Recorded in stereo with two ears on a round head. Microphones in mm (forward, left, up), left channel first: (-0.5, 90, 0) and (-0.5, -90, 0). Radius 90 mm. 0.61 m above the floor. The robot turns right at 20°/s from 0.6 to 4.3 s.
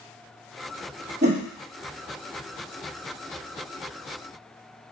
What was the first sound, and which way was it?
A whoosh, 35° right (ahead or behind).